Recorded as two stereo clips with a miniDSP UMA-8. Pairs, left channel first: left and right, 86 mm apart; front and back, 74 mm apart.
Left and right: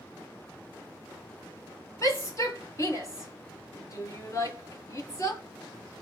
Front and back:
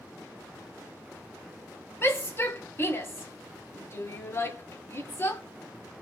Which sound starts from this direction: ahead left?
A shout, at 2.0 s.